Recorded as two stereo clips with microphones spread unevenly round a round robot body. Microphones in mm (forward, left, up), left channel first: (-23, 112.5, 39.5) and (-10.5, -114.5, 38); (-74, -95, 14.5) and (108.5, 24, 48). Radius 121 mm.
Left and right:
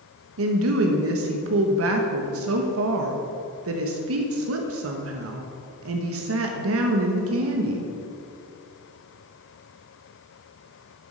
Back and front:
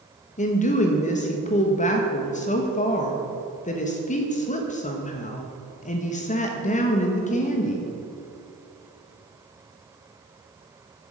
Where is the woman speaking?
100° right, 1.1 m.